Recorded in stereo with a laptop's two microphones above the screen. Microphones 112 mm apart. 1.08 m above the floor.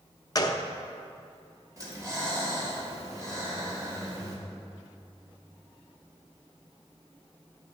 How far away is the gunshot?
About 0.6 m.